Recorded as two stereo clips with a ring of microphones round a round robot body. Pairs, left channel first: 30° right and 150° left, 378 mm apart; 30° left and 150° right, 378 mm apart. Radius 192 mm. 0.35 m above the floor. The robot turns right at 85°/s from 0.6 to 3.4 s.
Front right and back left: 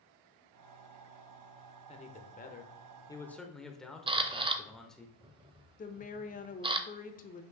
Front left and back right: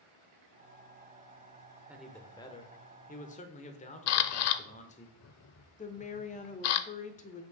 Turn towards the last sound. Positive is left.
turn(degrees=-5)